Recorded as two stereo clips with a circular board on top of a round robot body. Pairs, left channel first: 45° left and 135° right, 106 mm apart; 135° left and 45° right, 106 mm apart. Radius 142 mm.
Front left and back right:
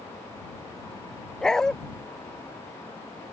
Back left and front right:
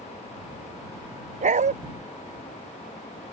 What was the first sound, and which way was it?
A dog barking, 40° right.